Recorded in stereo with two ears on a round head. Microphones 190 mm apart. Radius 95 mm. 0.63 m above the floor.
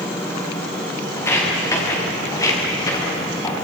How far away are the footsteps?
About 7 m.